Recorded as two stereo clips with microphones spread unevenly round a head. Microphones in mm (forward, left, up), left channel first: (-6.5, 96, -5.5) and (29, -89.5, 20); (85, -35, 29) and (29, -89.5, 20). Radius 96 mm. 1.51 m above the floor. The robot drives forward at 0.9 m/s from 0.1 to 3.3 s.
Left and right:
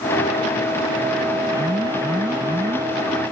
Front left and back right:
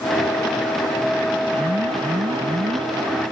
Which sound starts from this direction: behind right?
An alarm, at 1.5 s.